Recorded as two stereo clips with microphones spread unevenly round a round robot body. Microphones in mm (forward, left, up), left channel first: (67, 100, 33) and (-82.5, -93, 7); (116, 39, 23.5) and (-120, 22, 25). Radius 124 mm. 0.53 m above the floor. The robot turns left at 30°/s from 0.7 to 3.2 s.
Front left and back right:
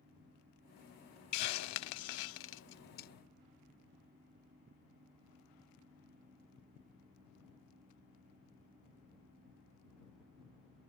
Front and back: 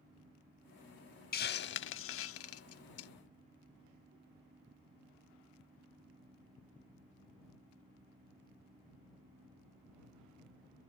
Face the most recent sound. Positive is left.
turn(degrees=-5)